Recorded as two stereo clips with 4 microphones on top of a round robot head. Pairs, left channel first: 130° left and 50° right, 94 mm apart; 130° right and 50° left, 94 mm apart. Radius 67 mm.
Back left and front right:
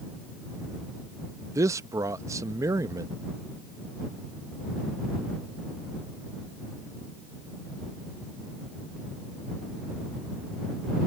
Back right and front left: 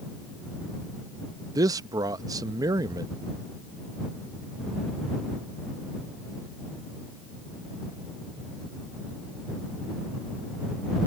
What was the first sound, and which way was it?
A man speaking, 5° left.